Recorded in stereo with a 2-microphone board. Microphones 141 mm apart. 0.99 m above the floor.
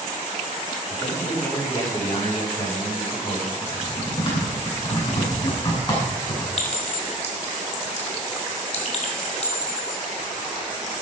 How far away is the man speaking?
About 7.5 m.